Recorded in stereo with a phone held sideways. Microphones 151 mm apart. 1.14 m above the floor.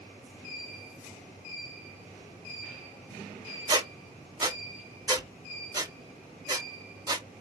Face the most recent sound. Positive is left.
turn(degrees=-25)  # may be behind; listen again after turning